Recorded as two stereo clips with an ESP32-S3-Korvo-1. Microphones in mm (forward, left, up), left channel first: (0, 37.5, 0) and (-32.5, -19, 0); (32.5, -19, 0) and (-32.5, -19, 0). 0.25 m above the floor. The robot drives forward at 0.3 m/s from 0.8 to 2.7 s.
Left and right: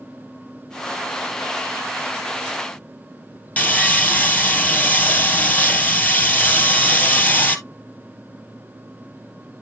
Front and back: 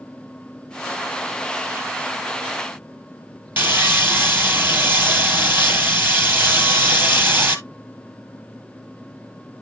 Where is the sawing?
125° left, 0.9 m.